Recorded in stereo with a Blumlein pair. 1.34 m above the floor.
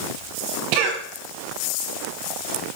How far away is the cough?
About 1.2 m.